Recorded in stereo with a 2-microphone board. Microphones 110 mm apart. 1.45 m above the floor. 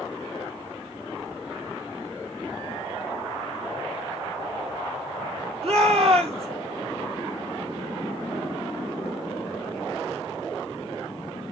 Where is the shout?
55° right (ahead or behind), 3.5 m.